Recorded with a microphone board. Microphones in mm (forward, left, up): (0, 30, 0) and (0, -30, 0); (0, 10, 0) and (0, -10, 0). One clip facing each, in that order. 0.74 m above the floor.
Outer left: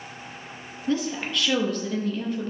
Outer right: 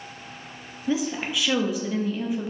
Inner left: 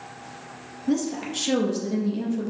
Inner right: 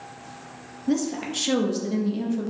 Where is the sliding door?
I don't hear a sliding door.